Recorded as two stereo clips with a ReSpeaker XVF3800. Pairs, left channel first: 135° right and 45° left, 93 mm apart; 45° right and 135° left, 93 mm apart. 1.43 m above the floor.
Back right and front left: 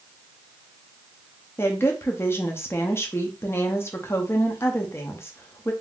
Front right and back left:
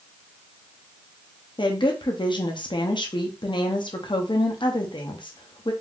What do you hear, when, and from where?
1.6 s a woman speaking: 75° right, 0.5 m